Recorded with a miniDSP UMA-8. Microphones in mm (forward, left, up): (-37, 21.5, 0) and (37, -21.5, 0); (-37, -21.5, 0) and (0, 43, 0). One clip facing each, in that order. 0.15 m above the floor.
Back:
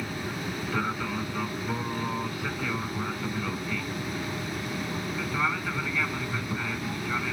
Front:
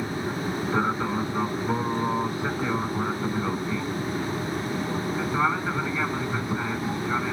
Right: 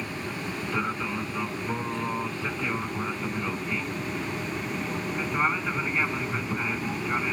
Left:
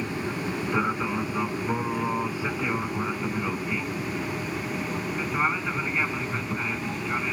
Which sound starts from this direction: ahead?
An aircraft, at 0.0 s.